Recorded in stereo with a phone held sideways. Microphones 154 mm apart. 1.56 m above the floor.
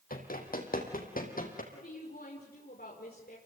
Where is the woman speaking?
80° left, 5 m.